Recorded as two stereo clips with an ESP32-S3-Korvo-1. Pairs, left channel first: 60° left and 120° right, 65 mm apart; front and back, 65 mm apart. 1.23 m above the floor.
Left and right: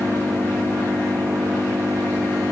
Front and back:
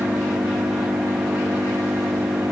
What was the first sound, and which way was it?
An engine running, 150° right.